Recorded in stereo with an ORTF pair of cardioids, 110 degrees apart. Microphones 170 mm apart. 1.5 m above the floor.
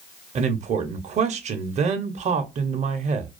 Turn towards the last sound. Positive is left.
turn(degrees=-45)